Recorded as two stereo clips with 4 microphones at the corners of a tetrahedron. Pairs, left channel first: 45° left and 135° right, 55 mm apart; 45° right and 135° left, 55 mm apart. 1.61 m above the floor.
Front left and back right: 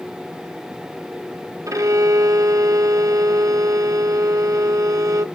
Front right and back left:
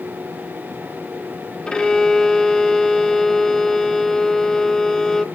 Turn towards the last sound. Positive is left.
turn(degrees=-120)